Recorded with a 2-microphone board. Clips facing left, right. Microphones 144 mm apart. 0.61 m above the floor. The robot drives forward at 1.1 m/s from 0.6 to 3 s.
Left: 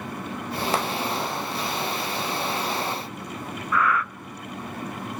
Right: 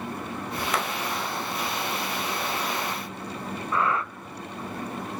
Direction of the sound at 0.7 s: 30° left (ahead or behind).